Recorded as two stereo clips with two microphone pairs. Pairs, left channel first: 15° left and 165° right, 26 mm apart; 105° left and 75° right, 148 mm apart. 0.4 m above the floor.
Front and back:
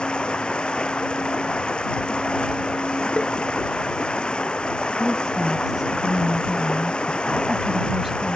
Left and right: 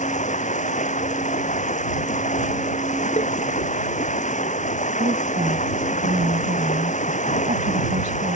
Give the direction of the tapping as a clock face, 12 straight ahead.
10 o'clock.